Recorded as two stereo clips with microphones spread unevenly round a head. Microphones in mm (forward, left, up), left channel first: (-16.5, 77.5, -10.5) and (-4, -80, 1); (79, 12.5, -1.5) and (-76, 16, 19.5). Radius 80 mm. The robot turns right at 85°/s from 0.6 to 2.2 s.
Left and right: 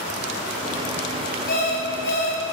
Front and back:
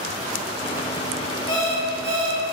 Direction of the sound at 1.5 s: 60° left.